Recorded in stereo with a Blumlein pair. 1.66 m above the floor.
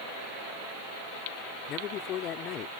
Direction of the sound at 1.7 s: 35° left.